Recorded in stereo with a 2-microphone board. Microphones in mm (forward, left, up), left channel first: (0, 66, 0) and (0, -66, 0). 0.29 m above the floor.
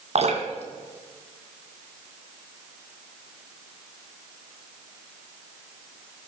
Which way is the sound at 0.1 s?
55° right (ahead or behind).